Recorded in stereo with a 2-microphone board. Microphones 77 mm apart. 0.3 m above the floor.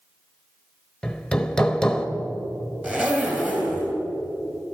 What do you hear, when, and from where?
1.0 s hammering: 10° left (ahead or behind), 0.8 m
2.8 s a zipper: 20° right (ahead or behind), 2.5 m